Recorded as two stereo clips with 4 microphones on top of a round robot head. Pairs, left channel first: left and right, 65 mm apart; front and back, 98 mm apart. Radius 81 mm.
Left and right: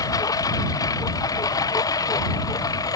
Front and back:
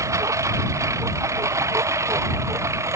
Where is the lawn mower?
120° left; by 3.0 s 115° left.